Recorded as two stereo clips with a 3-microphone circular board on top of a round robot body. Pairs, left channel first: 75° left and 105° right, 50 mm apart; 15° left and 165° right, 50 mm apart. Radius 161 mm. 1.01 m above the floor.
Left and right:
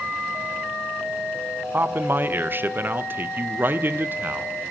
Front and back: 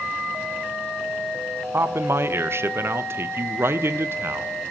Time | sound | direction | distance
1.7 | a man speaking | 140° right | 0.6 m